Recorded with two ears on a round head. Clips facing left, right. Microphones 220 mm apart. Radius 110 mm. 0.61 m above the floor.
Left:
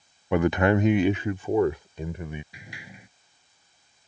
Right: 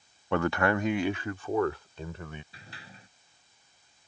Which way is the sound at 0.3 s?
10° left (ahead or behind).